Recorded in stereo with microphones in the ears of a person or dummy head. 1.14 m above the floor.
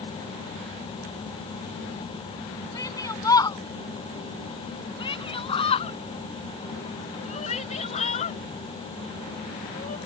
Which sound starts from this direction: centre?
A shout, at 2.8 s.